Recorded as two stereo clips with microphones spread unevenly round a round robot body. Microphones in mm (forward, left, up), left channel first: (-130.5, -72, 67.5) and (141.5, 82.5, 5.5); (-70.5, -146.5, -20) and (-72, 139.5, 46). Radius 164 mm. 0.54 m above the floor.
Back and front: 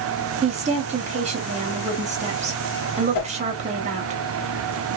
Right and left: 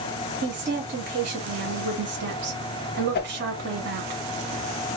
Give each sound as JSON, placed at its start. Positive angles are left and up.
{"t": 0.4, "sound": "a woman speaking", "azimuth_deg": 40, "distance_m": 0.7}
{"t": 3.1, "sound": "a whoosh", "azimuth_deg": -150, "distance_m": 0.5}